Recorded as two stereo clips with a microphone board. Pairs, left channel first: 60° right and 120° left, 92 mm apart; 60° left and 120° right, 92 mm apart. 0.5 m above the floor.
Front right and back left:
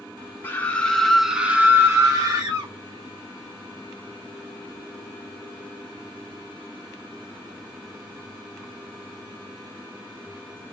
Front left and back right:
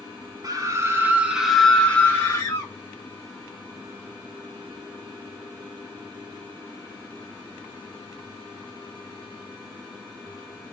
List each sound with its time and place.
0.4 s a scream: 115° right, 1.2 m; by 2.7 s 100° left, 1.4 m